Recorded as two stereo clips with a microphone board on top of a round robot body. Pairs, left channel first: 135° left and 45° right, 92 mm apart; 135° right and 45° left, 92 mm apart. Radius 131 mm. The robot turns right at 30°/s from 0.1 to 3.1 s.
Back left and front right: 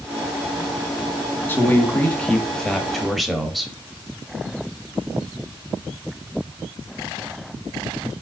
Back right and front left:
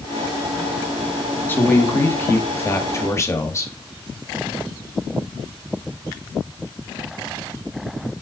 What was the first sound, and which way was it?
A man speaking, straight behind.